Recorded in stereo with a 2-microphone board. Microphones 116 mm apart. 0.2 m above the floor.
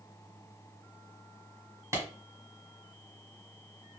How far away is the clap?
About 1.4 m.